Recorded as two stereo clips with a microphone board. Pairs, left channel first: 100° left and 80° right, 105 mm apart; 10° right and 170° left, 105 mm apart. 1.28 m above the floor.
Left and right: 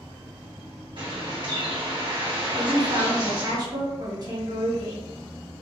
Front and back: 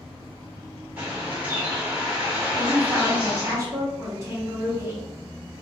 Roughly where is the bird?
Behind right.